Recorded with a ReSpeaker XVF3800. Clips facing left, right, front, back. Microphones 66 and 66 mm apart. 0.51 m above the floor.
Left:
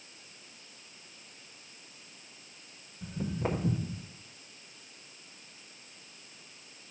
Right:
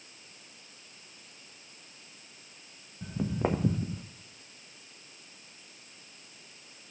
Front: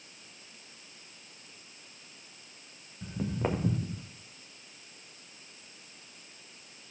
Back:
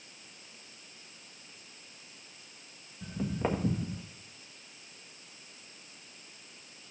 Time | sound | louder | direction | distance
3.0 | footsteps | right 3 dB, even | 80° right | 2 m